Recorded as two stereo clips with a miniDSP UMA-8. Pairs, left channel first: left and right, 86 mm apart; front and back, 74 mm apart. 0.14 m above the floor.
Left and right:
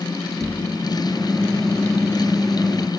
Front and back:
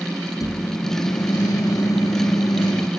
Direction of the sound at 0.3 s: 5° left.